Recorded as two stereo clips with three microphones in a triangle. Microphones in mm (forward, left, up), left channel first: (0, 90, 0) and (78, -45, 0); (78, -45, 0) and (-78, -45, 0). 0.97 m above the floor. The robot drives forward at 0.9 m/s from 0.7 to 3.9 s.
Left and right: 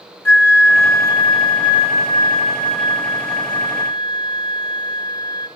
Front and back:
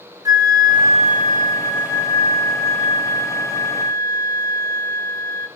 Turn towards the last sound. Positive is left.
turn(degrees=180)